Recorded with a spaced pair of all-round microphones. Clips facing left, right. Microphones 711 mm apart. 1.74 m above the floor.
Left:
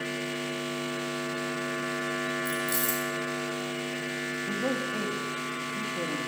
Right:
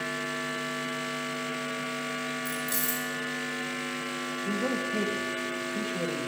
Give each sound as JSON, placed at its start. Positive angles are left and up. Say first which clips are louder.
{"t": 2.5, "sound": "keys jangling", "louder": "left 3 dB", "side_deg": -60, "distance_m": 5.0}
{"t": 4.5, "sound": "a man speaking", "louder": "right 1 dB", "side_deg": -45, "distance_m": 2.5}